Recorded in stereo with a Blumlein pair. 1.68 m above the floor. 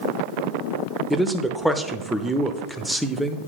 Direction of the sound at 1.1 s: 5° right.